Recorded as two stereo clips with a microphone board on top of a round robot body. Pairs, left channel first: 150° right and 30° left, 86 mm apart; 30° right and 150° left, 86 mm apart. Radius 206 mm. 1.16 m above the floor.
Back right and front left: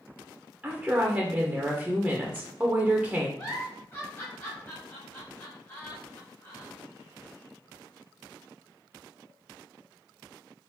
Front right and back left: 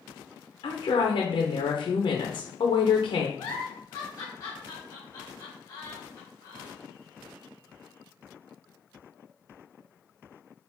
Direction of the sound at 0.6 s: 50° right.